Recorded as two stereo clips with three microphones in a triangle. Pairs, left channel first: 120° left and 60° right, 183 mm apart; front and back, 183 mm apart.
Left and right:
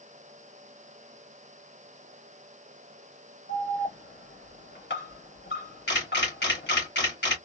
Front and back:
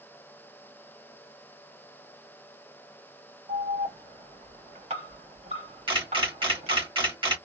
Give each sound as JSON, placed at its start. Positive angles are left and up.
{"t": 3.5, "sound": "an alarm", "azimuth_deg": 125, "distance_m": 2.5}
{"t": 5.9, "sound": "a camera shutter", "azimuth_deg": 120, "distance_m": 2.5}